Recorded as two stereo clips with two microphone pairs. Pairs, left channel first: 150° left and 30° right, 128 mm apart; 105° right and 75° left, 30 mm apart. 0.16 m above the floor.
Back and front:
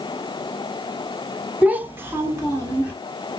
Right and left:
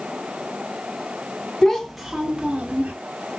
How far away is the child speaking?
About 0.7 m.